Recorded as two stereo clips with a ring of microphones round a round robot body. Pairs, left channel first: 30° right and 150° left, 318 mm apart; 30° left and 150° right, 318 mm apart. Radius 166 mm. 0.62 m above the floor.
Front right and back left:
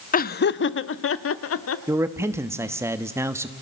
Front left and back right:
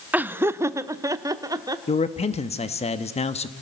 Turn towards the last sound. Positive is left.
turn(degrees=75)